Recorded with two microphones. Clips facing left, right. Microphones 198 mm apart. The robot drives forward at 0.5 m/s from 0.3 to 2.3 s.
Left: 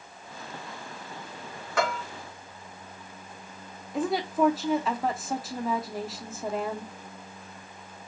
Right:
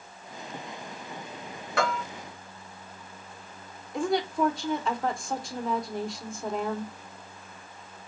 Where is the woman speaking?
5° left (ahead or behind), 0.8 m.